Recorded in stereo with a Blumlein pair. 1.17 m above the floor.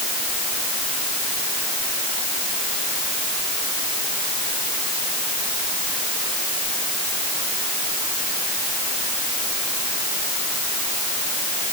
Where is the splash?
No splash in this recording.